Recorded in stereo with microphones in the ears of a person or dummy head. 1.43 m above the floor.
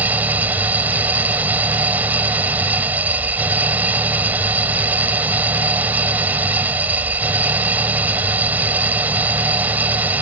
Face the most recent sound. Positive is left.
turn(degrees=-10)  # may be behind; listen again after turning